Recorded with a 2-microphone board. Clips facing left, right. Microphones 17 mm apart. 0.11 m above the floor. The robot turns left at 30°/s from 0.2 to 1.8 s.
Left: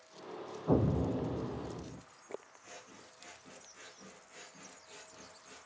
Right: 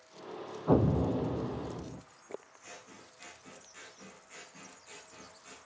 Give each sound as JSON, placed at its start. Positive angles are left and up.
{"t": 0.7, "sound": "an explosion", "azimuth_deg": -75, "distance_m": 0.7}
{"t": 2.6, "sound": "scissors", "side_deg": -50, "distance_m": 8.0}